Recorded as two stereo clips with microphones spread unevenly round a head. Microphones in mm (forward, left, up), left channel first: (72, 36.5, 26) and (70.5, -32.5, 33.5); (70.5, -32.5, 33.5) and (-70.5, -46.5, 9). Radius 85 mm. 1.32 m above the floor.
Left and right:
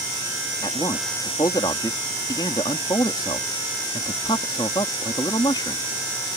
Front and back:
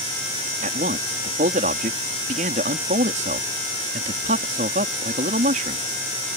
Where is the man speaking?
140° left.